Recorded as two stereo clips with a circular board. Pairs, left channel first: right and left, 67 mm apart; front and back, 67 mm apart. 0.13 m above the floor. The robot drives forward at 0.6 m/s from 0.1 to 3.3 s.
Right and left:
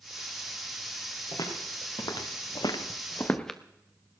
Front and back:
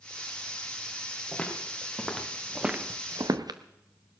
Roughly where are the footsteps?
Right.